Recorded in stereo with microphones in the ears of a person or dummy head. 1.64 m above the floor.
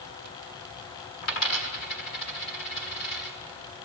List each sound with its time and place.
1.2 s a dropped coin: 50° left (ahead or behind), 2.5 m